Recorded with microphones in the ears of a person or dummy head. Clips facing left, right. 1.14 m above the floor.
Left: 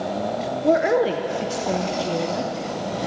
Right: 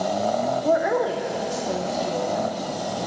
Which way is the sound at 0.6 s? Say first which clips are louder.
Left 5 dB; 30° left (ahead or behind).